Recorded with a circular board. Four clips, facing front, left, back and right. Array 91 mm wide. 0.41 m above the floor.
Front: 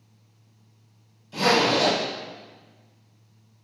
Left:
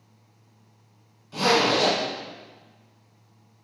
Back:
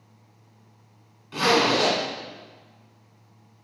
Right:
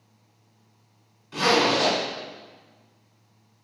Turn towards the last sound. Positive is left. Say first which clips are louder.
# even, even
turn(degrees=-160)